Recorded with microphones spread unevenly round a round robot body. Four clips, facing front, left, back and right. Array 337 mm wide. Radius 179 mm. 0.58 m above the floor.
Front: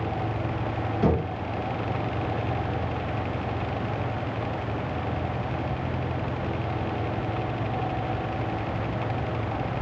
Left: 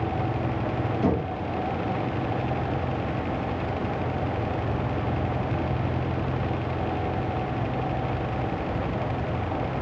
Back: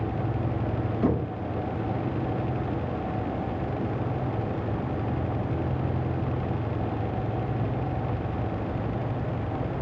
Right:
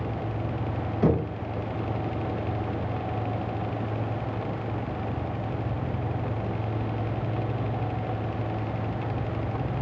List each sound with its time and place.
1.0 s knocking: 50° right, 4.5 m